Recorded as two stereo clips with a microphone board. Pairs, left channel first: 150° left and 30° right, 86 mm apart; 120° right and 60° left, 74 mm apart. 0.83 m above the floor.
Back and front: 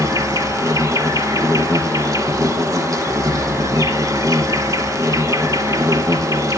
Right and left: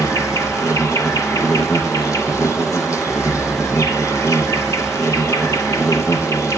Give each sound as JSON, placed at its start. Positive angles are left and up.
{"t": 0.0, "sound": "an insect", "azimuth_deg": -75, "distance_m": 1.8}